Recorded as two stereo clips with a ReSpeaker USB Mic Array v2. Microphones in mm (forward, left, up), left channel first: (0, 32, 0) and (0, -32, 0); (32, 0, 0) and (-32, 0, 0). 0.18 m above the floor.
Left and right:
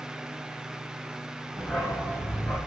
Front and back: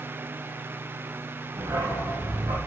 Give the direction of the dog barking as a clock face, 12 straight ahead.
7 o'clock.